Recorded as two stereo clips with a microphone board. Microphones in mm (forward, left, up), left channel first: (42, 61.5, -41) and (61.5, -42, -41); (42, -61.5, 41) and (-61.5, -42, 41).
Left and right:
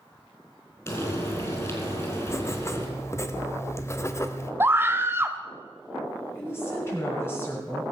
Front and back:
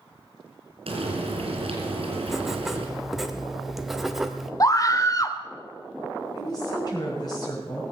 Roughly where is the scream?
Ahead right.